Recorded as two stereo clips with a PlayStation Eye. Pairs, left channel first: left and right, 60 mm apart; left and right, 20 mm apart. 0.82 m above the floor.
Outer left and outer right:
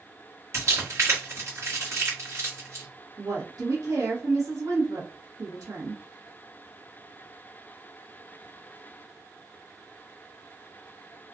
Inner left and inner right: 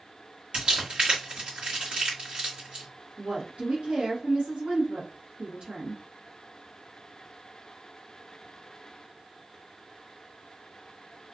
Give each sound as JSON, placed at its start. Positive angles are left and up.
{"t": 0.5, "sound": "crumpling", "side_deg": -55, "distance_m": 1.4}
{"t": 3.2, "sound": "a woman speaking", "side_deg": -65, "distance_m": 0.9}